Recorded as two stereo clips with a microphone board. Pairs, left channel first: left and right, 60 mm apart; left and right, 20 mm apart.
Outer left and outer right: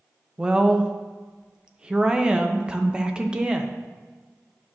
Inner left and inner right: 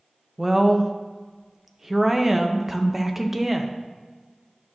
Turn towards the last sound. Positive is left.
turn(degrees=-15)  # may be behind; listen again after turning